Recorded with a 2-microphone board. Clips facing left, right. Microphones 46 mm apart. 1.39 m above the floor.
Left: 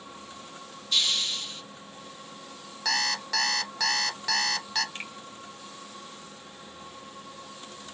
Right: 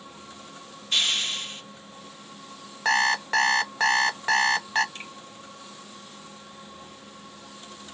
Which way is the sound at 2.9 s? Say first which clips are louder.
Right 7 dB; 30° right (ahead or behind).